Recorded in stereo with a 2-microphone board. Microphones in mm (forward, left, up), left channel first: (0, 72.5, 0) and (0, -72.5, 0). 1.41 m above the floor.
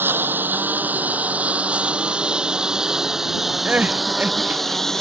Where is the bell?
I don't hear a bell.